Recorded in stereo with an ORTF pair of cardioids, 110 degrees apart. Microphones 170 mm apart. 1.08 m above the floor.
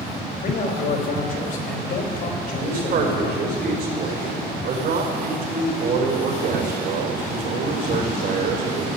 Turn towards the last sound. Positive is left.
turn(degrees=-65)